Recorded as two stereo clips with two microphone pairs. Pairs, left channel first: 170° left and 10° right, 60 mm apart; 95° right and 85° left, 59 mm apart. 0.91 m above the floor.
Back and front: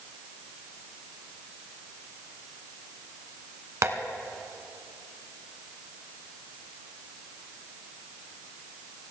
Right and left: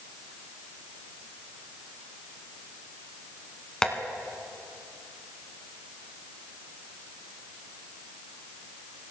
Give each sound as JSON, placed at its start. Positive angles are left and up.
{"t": 3.8, "sound": "tapping", "azimuth_deg": -20, "distance_m": 1.4}